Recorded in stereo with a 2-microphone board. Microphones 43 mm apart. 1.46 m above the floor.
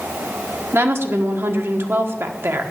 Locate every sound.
0.7 s a woman speaking: 70° right (ahead or behind), 1.2 m